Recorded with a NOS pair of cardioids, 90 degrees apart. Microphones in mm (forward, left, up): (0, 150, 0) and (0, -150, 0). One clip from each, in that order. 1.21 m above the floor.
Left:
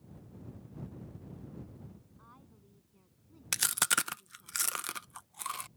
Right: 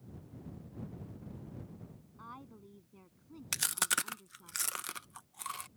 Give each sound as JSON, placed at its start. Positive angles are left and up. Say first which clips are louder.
{"t": 2.2, "sound": "a woman speaking", "louder": "right 13 dB", "azimuth_deg": -60}
{"t": 3.5, "sound": "chewing", "louder": "left 3 dB", "azimuth_deg": 15}